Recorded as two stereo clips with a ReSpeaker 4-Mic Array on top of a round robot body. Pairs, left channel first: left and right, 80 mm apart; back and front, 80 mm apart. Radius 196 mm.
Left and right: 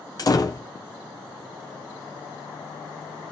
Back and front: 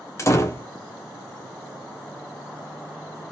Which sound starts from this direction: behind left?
A door slam, at 0.2 s.